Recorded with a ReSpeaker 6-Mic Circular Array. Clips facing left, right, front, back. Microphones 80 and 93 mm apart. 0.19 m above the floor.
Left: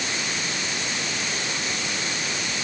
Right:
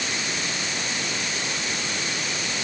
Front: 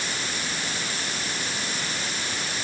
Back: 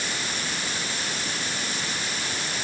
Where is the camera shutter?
No camera shutter in this recording.